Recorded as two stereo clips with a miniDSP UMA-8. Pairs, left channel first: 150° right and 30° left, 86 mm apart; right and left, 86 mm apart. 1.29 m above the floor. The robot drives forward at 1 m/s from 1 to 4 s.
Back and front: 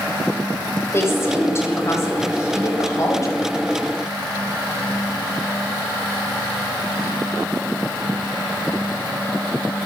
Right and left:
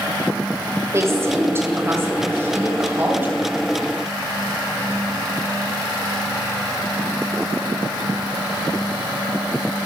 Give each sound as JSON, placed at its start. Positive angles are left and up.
{"t": 0.9, "sound": "a woman speaking", "azimuth_deg": 150, "distance_m": 7.0}